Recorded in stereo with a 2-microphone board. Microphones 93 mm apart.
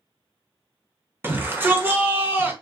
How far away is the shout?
About 0.9 m.